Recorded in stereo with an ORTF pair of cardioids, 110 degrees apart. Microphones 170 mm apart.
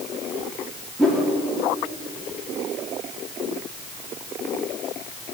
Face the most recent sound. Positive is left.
turn(degrees=0)